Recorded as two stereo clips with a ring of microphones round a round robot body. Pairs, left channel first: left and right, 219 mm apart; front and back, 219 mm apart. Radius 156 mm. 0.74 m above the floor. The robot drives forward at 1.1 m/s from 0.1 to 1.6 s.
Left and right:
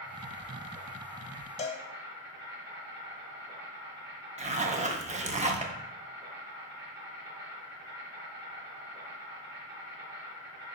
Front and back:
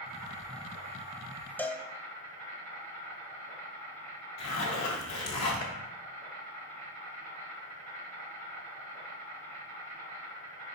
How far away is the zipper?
About 0.7 m.